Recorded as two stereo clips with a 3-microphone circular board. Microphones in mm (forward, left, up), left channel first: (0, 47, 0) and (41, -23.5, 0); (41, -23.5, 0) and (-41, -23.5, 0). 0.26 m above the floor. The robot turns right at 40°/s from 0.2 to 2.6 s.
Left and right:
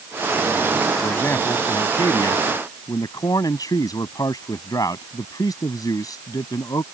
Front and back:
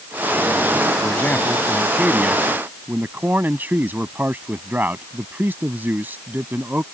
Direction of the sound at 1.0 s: 60° left.